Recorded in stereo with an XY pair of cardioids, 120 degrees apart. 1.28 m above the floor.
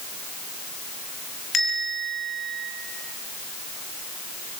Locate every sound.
1.5 s a bell: 35° left, 7 m